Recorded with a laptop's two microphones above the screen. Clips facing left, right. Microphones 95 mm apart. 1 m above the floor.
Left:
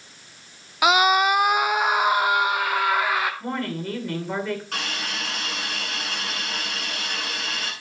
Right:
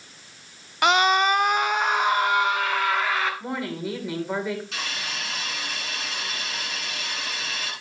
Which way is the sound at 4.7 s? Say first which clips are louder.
Left 2 dB; 50° left (ahead or behind).